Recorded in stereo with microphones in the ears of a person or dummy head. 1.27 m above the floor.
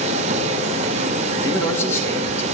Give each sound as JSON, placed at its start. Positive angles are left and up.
{"t": 0.0, "sound": "a machine running", "side_deg": -40, "distance_m": 2.5}
{"t": 1.4, "sound": "a man speaking", "side_deg": 15, "distance_m": 4.5}